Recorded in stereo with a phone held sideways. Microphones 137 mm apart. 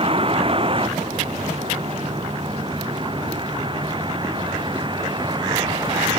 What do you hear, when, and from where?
0.0 s a vehicle: 45° right (ahead or behind); by 6.2 s 35° right (ahead or behind)